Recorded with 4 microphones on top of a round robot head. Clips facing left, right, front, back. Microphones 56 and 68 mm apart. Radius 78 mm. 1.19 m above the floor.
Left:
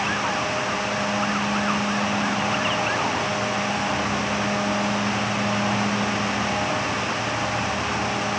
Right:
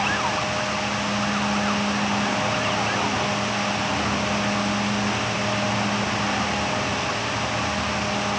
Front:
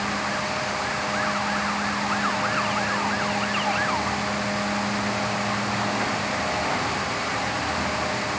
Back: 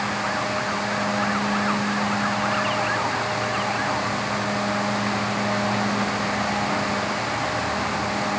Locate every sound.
Only background noise.